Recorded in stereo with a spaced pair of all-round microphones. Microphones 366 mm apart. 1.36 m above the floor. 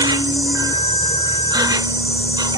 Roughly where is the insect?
Centre.